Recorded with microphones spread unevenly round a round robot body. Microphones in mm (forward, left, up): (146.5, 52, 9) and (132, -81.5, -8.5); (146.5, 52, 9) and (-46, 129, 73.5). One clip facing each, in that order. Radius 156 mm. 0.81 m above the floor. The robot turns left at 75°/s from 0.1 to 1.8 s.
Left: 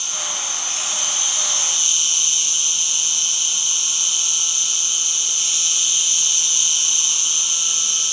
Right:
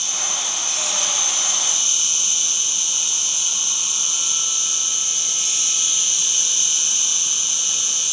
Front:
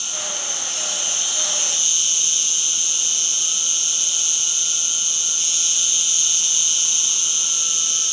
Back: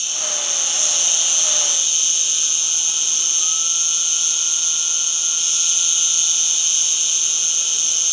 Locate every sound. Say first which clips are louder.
0.0 s an insect: right 1 dB, back 1 dB; 160° right, 0.9 m; by 8.1 s 75° left, 0.9 m